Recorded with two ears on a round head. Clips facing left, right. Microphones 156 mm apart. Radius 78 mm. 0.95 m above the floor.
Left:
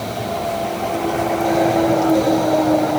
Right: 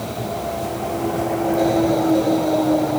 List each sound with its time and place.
Only background noise.